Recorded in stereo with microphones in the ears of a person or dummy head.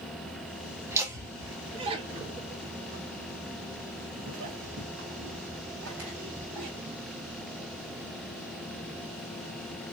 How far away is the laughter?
About 1.8 m.